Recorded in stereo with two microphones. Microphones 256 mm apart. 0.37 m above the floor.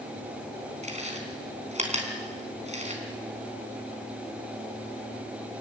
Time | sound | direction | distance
0.8 | chewing | 30° right (ahead or behind) | 4 m